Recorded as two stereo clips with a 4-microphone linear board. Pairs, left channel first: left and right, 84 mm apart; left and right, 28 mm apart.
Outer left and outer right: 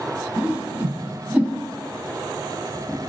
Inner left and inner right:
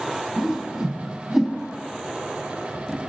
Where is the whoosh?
15° right (ahead or behind), 0.8 m.